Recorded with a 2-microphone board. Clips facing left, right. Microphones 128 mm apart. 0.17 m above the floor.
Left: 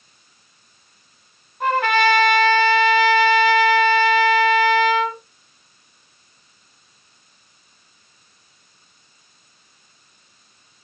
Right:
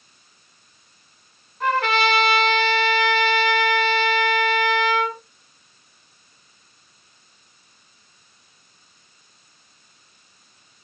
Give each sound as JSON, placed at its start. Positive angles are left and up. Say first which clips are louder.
{"t": 1.6, "sound": "a trumpet", "louder": "left 3 dB", "side_deg": 15, "distance_m": 1.7}